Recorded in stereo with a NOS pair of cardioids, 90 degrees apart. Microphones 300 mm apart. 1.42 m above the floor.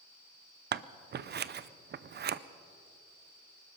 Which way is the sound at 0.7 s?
35° right.